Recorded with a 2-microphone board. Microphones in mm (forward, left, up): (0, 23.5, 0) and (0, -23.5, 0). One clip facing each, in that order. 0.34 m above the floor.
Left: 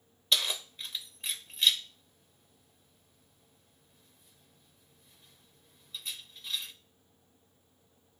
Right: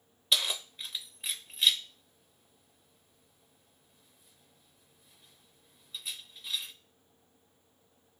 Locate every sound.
0.3 s keys jangling: centre (ahead or behind), 0.5 m